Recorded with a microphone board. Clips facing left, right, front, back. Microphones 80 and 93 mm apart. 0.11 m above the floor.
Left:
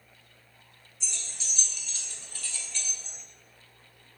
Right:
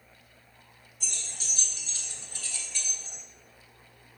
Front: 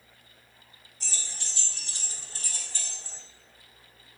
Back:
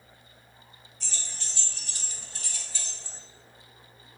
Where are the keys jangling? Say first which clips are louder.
Right 1 dB, front 1 dB; 80° right, 1.4 m; by 3.2 s straight ahead, 1.4 m.